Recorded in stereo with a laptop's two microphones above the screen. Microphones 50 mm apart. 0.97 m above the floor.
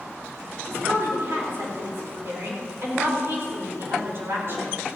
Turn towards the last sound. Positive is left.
turn(degrees=-50)  # may be behind; listen again after turning